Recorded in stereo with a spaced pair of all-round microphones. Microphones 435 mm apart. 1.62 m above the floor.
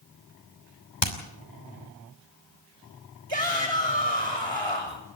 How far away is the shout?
About 6 m.